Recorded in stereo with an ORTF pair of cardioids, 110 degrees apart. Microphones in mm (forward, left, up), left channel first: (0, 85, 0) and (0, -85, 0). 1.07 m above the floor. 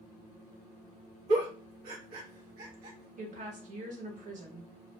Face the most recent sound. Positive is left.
turn(degrees=-50)